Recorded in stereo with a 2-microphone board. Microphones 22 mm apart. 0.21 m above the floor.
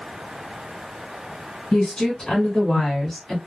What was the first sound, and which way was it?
A woman speaking, 30° left (ahead or behind).